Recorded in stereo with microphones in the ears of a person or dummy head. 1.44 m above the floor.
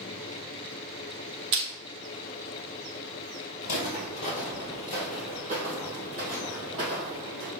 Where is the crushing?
25° right (ahead or behind), 0.6 m.